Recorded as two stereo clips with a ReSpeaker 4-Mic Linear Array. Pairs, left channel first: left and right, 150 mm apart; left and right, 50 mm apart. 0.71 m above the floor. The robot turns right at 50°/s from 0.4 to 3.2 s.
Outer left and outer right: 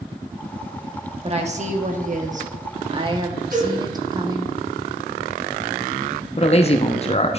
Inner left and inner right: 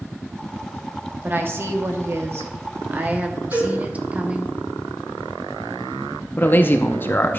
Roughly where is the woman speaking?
Behind right.